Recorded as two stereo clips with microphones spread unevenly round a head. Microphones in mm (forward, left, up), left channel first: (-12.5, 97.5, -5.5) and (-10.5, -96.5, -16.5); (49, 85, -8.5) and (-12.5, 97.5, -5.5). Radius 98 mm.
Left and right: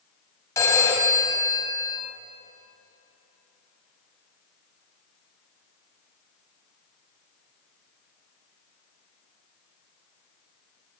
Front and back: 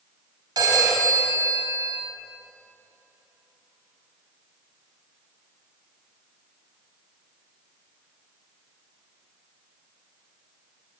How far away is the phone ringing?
About 3.5 m.